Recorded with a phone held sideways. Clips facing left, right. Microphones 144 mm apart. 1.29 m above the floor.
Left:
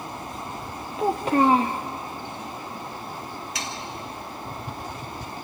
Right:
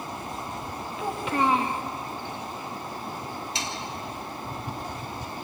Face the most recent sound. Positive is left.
turn(degrees=-30)  # may be behind; listen again after turning